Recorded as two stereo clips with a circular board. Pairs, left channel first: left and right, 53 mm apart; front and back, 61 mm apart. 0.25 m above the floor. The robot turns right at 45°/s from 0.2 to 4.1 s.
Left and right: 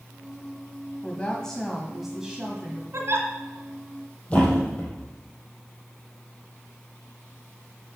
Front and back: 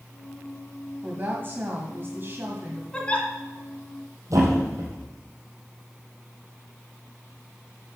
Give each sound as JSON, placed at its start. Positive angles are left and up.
{"t": 1.0, "sound": "a woman speaking", "azimuth_deg": 140, "distance_m": 1.5}
{"t": 2.9, "sound": "a giggle", "azimuth_deg": -75, "distance_m": 2.0}
{"t": 4.3, "sound": "a thud", "azimuth_deg": 155, "distance_m": 4.0}